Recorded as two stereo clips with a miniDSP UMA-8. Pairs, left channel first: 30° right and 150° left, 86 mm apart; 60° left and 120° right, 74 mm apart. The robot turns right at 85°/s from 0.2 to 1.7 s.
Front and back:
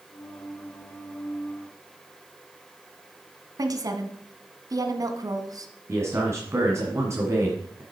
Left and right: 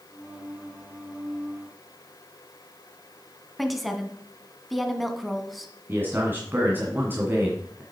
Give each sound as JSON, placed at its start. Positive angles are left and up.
{"t": 3.6, "sound": "a woman speaking", "azimuth_deg": 150, "distance_m": 1.3}
{"t": 5.9, "sound": "a man speaking", "azimuth_deg": -170, "distance_m": 2.0}